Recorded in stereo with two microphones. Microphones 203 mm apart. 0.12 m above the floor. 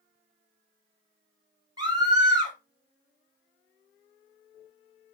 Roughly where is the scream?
Centre.